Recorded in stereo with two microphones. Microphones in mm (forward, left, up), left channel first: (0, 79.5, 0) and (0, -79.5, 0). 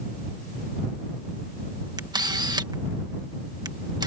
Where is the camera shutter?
25° right (ahead or behind).